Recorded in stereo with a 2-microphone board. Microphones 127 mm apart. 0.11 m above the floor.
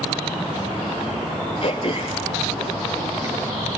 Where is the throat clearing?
45° left (ahead or behind), 4 m.